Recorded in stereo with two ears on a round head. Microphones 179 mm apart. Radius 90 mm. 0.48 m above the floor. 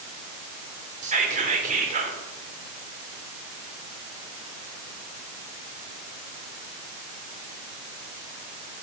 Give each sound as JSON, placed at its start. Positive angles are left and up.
{"t": 1.0, "sound": "whispering", "side_deg": -40, "distance_m": 1.7}